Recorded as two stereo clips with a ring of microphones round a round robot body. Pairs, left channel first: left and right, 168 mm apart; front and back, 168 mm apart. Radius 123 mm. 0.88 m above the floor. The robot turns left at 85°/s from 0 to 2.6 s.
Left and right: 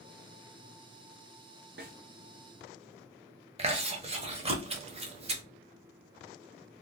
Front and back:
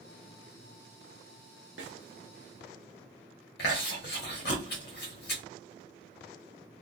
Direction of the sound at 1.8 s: 140° right.